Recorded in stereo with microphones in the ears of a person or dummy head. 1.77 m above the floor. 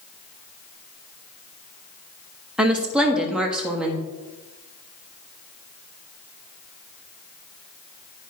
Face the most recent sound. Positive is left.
turn(degrees=-5)  # may be behind; listen again after turning